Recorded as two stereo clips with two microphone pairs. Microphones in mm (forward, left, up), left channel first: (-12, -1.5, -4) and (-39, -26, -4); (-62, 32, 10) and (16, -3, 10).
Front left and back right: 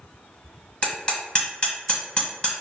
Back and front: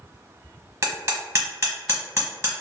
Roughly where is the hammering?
Ahead.